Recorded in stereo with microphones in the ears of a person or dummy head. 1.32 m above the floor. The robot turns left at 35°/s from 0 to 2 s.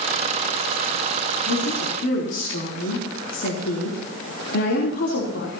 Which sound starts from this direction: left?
A woman speaking, at 1.5 s.